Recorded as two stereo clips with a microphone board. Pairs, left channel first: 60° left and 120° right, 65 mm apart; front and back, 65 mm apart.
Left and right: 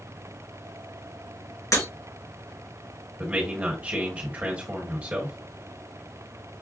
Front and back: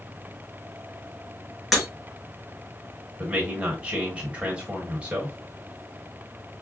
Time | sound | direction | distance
1.7 | breaking glass | 85° left | 2.0 m
3.2 | a man speaking | 145° right | 1.3 m